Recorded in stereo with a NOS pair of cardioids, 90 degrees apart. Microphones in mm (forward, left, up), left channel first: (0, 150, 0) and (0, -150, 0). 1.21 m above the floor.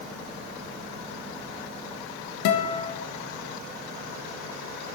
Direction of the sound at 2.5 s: 70° left.